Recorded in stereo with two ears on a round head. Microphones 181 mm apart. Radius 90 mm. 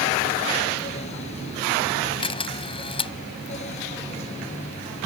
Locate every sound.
2.2 s a camera shutter: 30° left (ahead or behind)